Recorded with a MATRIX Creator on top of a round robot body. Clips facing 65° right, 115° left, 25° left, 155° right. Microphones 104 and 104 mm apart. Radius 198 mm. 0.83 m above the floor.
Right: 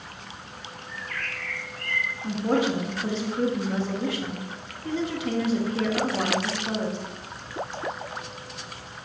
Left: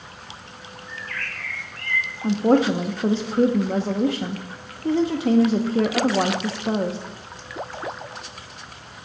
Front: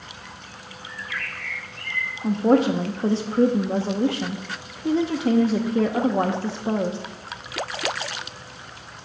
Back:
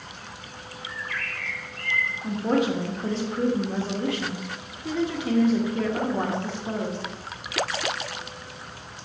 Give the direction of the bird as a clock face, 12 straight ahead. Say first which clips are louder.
Left 1 dB, even; 9 o'clock.